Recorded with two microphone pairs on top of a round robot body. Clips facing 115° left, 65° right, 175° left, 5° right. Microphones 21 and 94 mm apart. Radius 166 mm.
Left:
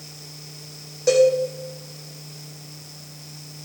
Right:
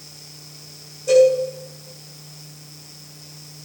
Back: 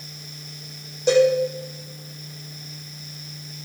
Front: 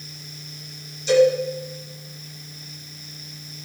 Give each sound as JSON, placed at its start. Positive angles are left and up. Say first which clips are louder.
{"t": 1.1, "sound": "a cowbell", "louder": "right 3 dB, front 1 dB", "azimuth_deg": 135, "distance_m": 7.5}